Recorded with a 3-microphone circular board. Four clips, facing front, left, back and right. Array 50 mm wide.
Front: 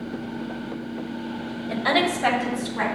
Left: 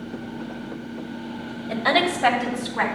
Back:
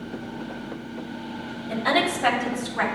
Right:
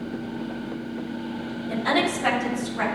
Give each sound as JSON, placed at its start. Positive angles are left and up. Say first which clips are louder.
{"t": 1.7, "sound": "a woman speaking", "louder": "left 2 dB, front 1 dB", "azimuth_deg": 70, "distance_m": 1.7}